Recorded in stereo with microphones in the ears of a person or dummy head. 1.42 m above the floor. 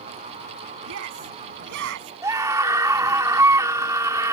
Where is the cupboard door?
I don't hear a cupboard door.